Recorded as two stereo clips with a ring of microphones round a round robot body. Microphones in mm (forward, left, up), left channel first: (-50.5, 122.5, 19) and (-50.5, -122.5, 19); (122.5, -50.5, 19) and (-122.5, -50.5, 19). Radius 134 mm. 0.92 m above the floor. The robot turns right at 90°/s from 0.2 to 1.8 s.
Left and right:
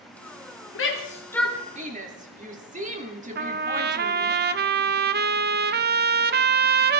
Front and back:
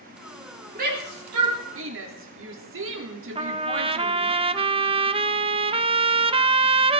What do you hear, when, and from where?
0.8 s a shout: 120° left, 3 m; by 4.3 s 150° right, 3 m
3.4 s a trumpet: 120° right, 0.7 m